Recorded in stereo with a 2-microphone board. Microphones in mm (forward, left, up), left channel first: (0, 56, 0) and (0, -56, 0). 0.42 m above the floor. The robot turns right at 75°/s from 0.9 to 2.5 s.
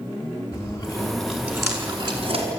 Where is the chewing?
30° left (ahead or behind), 5 m; by 2.5 s 75° right (ahead or behind), 5 m.